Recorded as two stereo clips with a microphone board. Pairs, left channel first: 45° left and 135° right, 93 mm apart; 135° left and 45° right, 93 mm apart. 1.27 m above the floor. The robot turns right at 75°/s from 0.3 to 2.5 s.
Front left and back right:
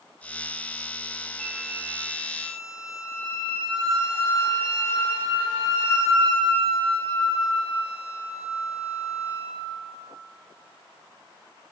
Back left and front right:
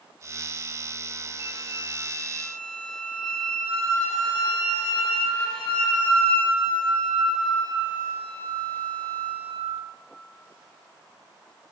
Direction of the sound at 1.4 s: 130° left.